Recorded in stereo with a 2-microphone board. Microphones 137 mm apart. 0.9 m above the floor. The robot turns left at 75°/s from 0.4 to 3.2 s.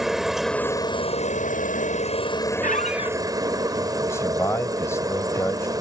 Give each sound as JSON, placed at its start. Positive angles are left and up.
{"t": 0.0, "sound": "a helicopter", "azimuth_deg": -175}
{"t": 2.6, "sound": "a squeak", "azimuth_deg": 75}
{"t": 4.1, "sound": "a man speaking", "side_deg": 20}